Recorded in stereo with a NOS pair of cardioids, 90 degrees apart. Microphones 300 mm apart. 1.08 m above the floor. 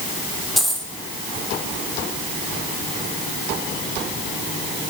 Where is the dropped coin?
Straight ahead, 1.4 m.